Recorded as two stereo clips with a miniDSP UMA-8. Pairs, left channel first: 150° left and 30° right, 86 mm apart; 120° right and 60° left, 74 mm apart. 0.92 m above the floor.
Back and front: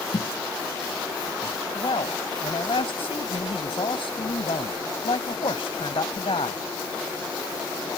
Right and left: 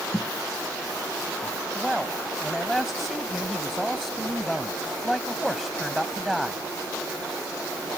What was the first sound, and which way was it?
A thud, 165° left.